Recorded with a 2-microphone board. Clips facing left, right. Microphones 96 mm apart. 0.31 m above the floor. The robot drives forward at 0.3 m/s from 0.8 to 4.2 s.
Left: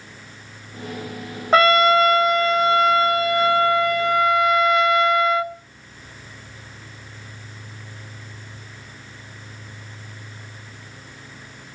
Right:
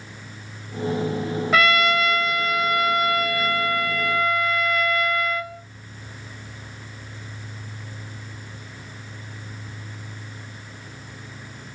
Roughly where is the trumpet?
Left.